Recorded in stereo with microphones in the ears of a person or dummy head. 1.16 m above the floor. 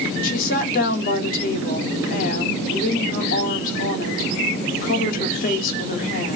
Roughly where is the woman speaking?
Left.